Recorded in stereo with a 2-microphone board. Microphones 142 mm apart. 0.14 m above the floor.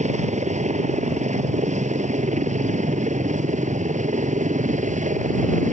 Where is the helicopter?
55° right (ahead or behind); by 5.7 s 60° right (ahead or behind).